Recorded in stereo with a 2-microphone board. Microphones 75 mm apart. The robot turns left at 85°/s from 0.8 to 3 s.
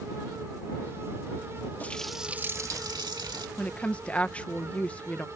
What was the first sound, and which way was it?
A running tap, 25° left.